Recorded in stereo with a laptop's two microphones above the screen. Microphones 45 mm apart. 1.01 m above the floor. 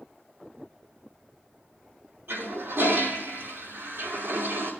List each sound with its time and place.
2.3 s a toilet flushing: 50° right (ahead or behind), 5 m